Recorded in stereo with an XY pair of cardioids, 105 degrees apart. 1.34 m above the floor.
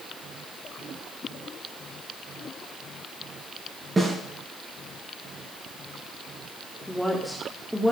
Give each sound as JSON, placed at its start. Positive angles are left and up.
{"t": 4.0, "sound": "a snare drum", "azimuth_deg": -20, "distance_m": 7.0}
{"t": 6.9, "sound": "a woman speaking", "azimuth_deg": 0, "distance_m": 3.0}